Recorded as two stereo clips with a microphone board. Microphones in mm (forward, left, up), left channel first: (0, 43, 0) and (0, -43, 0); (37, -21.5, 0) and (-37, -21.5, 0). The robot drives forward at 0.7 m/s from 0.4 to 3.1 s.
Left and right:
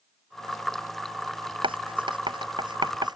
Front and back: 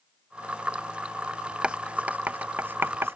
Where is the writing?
100° right; by 3.2 s 120° right.